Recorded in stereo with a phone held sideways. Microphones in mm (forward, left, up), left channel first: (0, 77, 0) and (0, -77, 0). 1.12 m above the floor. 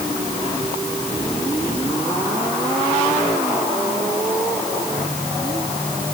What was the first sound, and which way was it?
Only background noise.